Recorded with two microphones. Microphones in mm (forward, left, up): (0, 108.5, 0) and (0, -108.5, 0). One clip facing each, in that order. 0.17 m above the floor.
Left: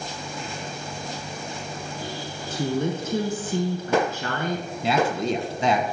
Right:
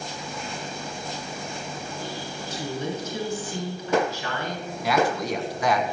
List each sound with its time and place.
2.5 s a woman speaking: 55° left (ahead or behind), 1.7 m
4.8 s a man speaking: 25° left (ahead or behind), 1.2 m